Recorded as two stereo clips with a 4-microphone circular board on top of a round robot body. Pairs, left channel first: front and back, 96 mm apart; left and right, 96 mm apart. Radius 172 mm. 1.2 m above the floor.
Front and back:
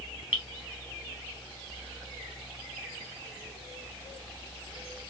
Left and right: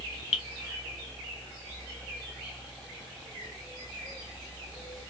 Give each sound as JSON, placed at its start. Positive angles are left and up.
{"t": 0.3, "sound": "dripping", "azimuth_deg": 105, "distance_m": 0.8}